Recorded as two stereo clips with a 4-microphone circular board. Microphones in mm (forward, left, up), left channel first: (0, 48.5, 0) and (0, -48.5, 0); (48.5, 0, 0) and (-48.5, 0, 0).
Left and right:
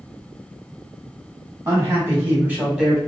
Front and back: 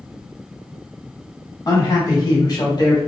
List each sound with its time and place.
1.6 s a man speaking: 45° right, 1.5 m; by 3.0 s 5° right, 1.2 m